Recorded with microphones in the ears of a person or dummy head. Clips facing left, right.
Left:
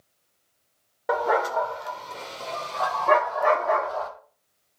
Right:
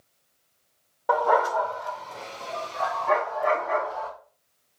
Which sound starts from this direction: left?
A dog barking, at 1.1 s.